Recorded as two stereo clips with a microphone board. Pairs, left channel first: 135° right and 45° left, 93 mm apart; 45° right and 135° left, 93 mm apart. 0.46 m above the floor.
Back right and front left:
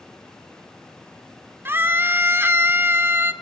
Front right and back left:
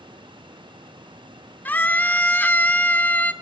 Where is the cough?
No cough in this recording.